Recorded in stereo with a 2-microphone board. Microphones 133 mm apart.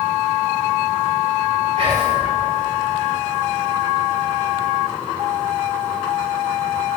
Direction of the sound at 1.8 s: 50° right (ahead or behind).